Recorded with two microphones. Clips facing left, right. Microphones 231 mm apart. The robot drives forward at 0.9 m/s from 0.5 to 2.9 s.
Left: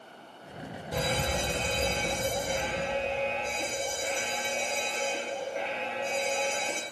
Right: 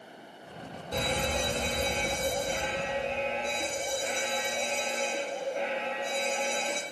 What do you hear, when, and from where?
0.9 s an alarm: 10° left (ahead or behind), 4 m; by 6.8 s 5° left (ahead or behind), 5.5 m